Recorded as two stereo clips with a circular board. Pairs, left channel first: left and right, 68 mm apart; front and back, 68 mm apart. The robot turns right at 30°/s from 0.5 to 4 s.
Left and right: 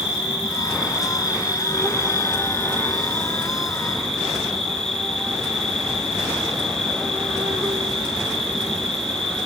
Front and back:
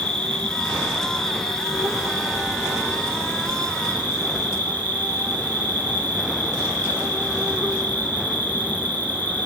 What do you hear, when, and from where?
0.0 s an insect: 50° left, 0.8 m; by 9.5 s 155° left, 0.8 m